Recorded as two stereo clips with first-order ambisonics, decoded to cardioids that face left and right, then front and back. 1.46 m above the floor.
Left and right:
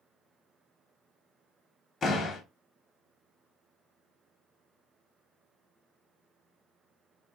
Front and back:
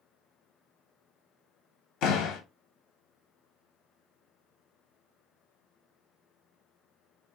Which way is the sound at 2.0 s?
20° left.